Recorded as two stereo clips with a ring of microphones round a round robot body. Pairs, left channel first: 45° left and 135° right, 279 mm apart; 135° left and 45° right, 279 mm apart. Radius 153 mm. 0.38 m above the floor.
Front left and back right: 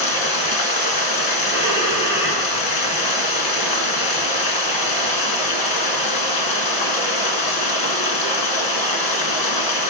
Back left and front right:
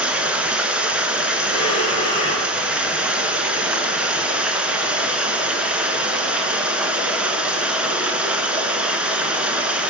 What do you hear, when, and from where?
0.0 s running water: 40° left, 1.7 m
1.5 s breathing: 60° left, 5.5 m